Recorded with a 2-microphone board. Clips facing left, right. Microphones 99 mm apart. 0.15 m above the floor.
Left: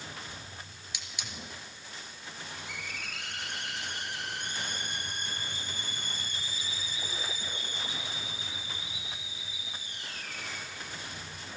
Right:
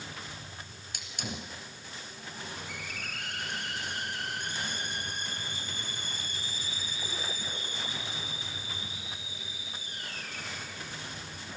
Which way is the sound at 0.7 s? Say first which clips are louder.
Even; 50° right (ahead or behind).